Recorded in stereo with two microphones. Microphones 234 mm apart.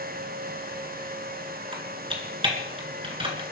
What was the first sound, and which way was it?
Typing on a keyboard, 20° right (ahead or behind).